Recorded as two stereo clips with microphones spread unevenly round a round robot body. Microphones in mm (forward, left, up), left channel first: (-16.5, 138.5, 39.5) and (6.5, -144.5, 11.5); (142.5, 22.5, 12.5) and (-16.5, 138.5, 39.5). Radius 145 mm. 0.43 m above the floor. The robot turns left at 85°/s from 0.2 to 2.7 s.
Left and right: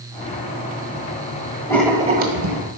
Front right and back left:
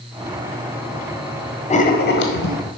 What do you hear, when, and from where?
1.7 s writing: 15° left, 1.4 m; by 2.6 s 65° right, 1.4 m